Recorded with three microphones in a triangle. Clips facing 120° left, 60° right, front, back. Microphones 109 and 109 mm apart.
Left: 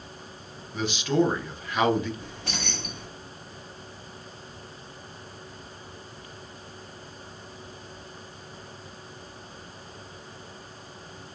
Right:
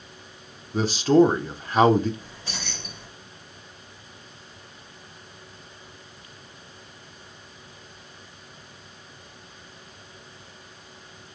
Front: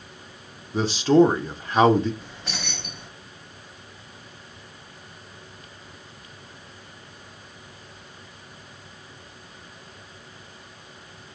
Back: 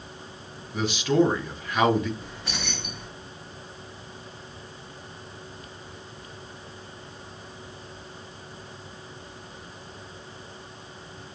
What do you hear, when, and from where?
0.7 s a man speaking: 35° right, 0.5 m
2.2 s keys jangling: 90° left, 2.0 m